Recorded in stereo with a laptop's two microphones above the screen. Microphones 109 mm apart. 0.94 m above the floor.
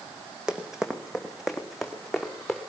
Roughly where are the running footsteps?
Centre.